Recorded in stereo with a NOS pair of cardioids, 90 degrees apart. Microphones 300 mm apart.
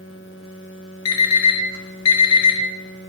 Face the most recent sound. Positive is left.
turn(degrees=60)